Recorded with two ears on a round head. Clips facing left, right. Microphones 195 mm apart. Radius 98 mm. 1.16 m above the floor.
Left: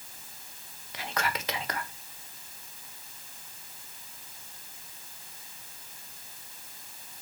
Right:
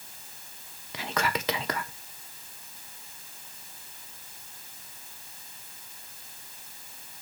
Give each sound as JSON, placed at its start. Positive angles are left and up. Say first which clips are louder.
{"t": 0.9, "sound": "whispering", "louder": "right 3 dB", "side_deg": -65, "distance_m": 1.5}